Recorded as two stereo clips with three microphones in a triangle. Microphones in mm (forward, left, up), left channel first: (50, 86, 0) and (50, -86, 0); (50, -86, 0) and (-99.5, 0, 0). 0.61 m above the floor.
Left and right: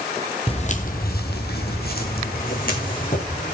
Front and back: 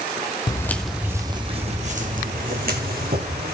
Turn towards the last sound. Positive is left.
turn(degrees=130)